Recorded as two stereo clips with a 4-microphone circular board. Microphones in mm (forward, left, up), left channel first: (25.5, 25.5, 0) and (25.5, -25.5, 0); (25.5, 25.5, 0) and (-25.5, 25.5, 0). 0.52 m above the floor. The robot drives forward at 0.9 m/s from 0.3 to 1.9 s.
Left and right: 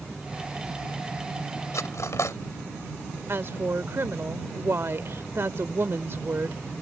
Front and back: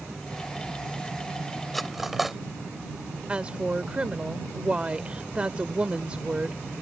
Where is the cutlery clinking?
90° left; by 2.4 s 95° left.